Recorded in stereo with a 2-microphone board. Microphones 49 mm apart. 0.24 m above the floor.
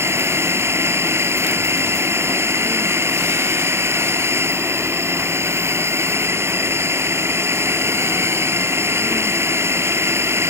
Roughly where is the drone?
Right.